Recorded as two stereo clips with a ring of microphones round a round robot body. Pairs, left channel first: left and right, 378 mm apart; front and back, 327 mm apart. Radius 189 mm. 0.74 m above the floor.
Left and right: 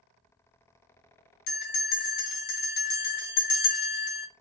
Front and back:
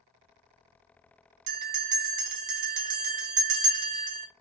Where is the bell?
160° left, 0.7 m.